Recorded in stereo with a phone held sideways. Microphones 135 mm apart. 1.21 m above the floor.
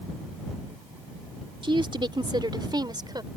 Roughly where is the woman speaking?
Right.